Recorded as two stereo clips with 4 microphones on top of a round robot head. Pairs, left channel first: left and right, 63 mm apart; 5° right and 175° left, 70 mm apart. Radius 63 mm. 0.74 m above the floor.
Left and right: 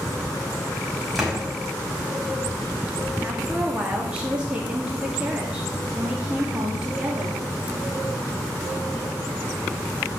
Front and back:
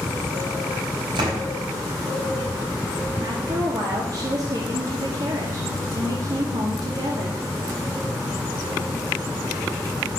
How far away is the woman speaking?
About 1.9 m.